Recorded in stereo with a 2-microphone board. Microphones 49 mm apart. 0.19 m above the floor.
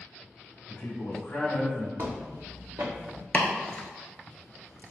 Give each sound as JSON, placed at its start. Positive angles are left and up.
{"t": 0.7, "sound": "a man speaking", "side_deg": 35, "distance_m": 1.4}
{"t": 2.0, "sound": "footsteps", "side_deg": -85, "distance_m": 1.3}
{"t": 3.3, "sound": "chopping", "side_deg": 35, "distance_m": 0.7}